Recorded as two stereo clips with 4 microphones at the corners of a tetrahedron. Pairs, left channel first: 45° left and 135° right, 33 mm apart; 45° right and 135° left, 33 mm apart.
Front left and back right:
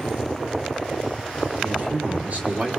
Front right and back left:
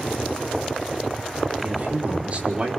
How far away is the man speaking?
About 5.5 m.